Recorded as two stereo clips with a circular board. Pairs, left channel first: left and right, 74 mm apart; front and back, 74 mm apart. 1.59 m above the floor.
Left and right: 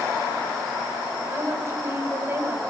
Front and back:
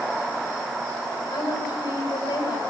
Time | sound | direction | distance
1.3 | a woman speaking | 35° right | 9 m